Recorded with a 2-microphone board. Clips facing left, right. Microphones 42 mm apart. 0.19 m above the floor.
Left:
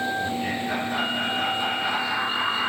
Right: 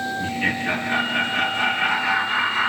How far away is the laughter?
About 2.5 m.